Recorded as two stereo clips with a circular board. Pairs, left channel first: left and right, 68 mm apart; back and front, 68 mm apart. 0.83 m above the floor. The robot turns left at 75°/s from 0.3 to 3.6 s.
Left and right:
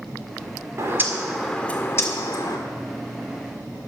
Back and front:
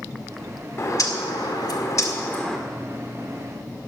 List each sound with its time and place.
0.8 s a bird: 130° right, 1.8 m; by 2.6 s 95° left, 1.8 m